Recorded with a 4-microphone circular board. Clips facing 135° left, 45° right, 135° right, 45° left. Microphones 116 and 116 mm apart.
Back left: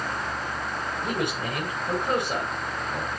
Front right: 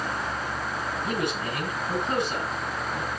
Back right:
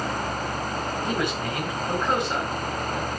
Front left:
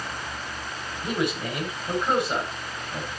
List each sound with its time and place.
1.0 s a man speaking: 130° left, 5 m